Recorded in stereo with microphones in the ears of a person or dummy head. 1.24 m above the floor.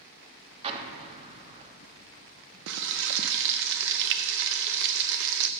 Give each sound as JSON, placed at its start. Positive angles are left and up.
{"t": 0.6, "sound": "an explosion", "side_deg": -30, "distance_m": 1.1}
{"t": 2.7, "sound": "frying", "side_deg": -65, "distance_m": 0.5}